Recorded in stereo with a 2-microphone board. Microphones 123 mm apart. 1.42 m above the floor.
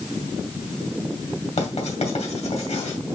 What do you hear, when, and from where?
1.6 s writing: 60° left (ahead or behind), 2.5 m